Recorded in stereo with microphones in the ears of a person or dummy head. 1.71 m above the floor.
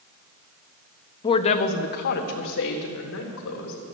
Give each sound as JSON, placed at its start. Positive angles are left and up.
{"t": 1.2, "sound": "a woman speaking", "side_deg": 20, "distance_m": 0.7}